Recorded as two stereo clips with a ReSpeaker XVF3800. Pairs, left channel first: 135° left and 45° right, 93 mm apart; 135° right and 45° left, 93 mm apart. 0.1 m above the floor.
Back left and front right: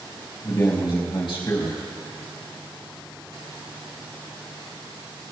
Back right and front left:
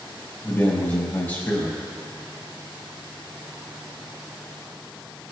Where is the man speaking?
155° left, 4 m.